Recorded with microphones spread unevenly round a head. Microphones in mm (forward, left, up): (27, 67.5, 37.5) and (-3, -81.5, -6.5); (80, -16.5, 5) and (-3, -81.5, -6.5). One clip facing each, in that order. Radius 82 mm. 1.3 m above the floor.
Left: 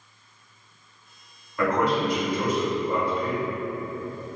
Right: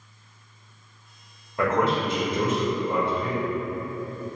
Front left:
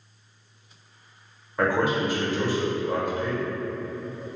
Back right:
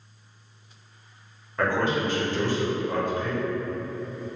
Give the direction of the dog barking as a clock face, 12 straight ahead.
No dog barking in this recording.